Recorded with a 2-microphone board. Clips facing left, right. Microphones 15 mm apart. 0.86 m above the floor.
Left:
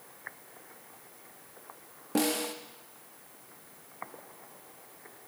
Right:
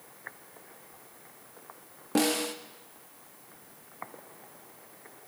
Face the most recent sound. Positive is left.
turn(degrees=-20)  # may be behind; listen again after turning